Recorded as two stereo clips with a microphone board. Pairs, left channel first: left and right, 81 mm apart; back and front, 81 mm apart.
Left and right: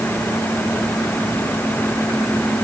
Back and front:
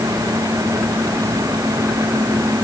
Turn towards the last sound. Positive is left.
No sound to turn to.